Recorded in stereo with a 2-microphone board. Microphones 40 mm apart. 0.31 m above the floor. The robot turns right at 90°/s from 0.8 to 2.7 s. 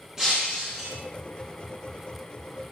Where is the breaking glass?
20° right (ahead or behind), 9 m; by 1.0 s 35° right (ahead or behind), 9 m.